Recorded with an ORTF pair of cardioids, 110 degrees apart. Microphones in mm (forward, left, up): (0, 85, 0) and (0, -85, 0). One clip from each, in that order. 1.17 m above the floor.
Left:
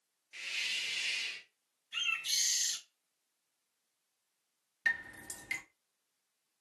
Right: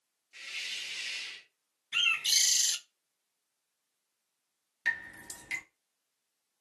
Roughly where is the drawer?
I don't hear a drawer.